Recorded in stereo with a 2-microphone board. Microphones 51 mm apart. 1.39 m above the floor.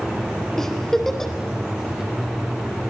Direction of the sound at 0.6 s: 10° left (ahead or behind).